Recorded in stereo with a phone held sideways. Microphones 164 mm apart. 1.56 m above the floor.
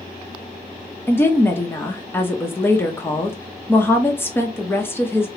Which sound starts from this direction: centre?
A woman speaking, at 1.1 s.